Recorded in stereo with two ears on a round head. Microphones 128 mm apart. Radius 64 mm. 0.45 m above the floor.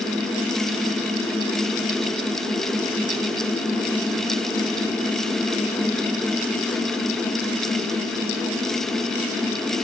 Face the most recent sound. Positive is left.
No sound to turn to.